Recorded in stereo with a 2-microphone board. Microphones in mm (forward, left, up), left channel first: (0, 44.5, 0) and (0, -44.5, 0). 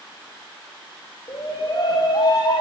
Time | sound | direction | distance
1.3 | a shout | 50° left (ahead or behind) | 7 m